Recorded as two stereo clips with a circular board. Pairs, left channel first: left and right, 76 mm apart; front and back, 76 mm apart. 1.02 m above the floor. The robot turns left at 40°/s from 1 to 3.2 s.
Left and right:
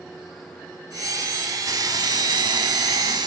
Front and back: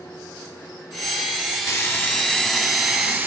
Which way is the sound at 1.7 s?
45° right.